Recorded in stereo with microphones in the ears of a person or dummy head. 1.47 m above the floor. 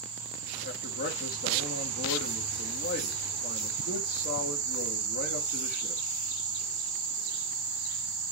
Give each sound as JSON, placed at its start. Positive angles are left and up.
{"t": 0.6, "sound": "a man speaking", "side_deg": 50, "distance_m": 2.5}